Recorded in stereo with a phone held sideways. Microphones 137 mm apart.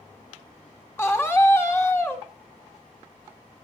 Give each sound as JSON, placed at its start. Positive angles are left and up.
{"t": 1.0, "sound": "a scream", "side_deg": 20, "distance_m": 2.5}